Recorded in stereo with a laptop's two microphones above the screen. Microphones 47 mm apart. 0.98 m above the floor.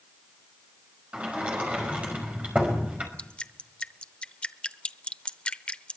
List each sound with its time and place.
1.1 s a sliding door: 30° right (ahead or behind), 5 m
3.2 s dripping: 25° left (ahead or behind), 0.7 m